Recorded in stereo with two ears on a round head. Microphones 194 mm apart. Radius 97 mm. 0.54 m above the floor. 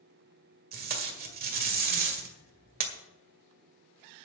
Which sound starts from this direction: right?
Tape being pulled, at 0.7 s.